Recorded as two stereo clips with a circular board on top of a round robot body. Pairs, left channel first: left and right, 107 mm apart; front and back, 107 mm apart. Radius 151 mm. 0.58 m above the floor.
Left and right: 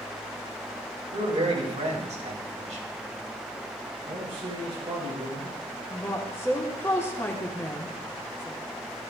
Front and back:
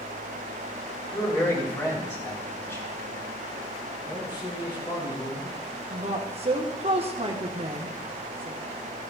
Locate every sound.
1.1 s a man speaking: 65° right, 3 m
4.1 s a man speaking: 45° right, 5.5 m
5.9 s a woman speaking: 160° left, 1.7 m